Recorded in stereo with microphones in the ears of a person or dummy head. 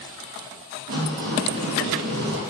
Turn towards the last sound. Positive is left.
turn(degrees=-60)  # may be behind; listen again after turning